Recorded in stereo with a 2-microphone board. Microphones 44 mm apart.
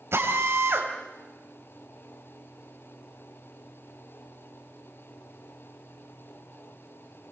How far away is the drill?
About 4 m.